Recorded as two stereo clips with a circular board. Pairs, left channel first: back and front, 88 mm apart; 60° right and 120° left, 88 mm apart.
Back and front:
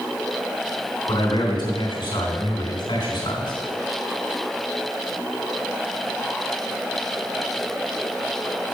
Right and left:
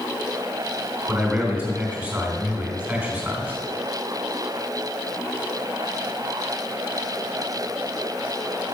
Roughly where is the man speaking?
Behind.